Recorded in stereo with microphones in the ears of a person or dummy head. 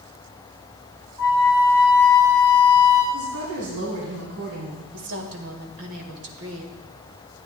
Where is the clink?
No clink in this recording.